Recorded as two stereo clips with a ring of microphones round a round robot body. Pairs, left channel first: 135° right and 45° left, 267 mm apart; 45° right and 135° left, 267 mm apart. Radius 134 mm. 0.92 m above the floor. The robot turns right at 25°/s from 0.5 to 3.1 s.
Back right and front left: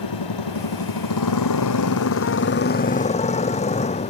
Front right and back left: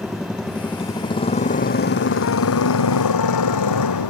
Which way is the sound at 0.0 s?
135° right.